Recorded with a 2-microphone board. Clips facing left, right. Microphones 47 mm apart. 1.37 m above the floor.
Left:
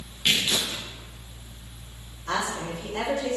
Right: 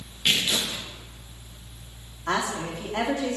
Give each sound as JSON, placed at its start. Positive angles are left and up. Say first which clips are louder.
{"t": 0.2, "sound": "tearing paper", "louder": "even", "side_deg": -5, "distance_m": 2.0}
{"t": 2.3, "sound": "a woman speaking", "louder": "right 1 dB", "side_deg": -75, "distance_m": 3.0}